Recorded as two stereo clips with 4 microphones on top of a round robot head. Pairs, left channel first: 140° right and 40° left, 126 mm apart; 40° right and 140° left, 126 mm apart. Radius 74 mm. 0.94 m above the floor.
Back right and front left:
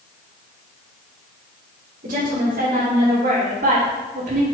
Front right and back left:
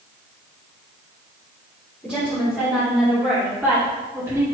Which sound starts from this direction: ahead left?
A woman speaking, at 2.0 s.